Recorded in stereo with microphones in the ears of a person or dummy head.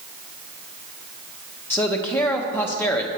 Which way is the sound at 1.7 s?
5° left (ahead or behind).